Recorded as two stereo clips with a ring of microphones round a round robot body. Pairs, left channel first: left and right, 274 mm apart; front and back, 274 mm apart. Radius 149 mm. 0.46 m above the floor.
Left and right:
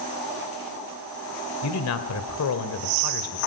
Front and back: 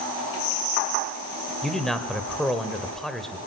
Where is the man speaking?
90° left, 2.5 m.